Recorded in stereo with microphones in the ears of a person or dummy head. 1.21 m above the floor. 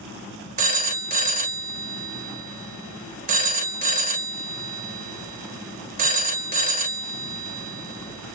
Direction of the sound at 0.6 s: 45° right (ahead or behind).